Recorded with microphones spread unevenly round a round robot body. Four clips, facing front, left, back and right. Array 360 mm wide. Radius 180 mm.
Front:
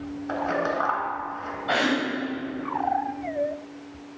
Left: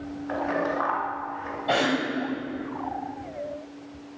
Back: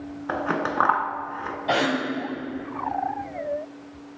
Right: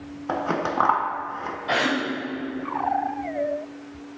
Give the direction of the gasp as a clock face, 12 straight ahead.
7 o'clock.